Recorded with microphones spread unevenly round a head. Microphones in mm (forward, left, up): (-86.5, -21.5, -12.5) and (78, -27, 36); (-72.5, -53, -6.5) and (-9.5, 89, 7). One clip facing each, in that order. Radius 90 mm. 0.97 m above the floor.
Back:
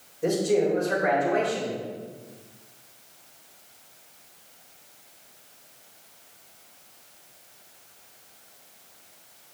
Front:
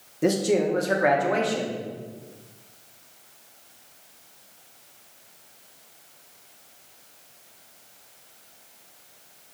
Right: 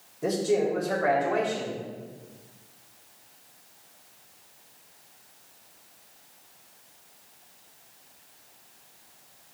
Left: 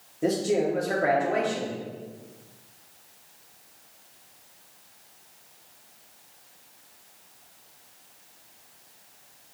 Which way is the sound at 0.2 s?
Straight ahead.